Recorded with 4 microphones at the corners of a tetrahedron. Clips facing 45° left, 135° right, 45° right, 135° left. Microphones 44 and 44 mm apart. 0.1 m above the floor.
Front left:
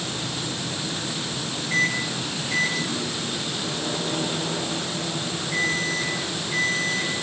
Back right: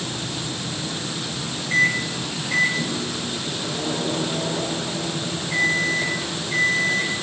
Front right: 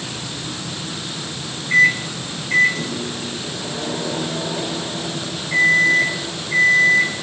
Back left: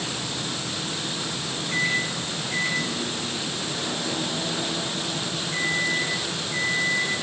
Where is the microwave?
85° right, 4 m.